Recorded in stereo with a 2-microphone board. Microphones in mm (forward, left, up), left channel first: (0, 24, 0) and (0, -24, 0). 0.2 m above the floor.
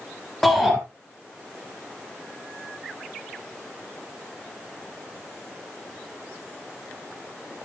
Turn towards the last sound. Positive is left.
turn(degrees=10)  # may be behind; listen again after turning